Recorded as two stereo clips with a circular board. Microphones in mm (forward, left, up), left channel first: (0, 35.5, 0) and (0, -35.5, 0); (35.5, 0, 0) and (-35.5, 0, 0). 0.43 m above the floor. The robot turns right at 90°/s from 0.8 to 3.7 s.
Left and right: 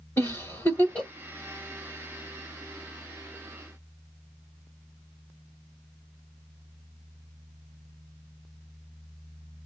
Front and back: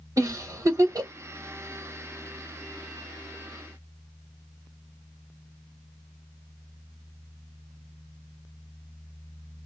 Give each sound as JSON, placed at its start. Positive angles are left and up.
{"t": 0.2, "sound": "a giggle", "azimuth_deg": 145, "distance_m": 1.5}